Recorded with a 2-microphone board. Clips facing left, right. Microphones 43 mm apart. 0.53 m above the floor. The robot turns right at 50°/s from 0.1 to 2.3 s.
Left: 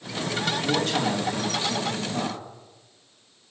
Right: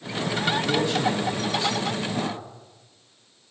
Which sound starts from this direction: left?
A man speaking, at 0.5 s.